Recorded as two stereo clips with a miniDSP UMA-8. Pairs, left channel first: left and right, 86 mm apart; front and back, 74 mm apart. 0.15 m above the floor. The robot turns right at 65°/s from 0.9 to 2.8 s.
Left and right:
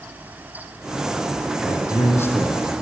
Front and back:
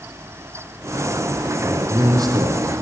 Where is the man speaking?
115° left, 5 m; by 2.8 s 170° right, 5 m.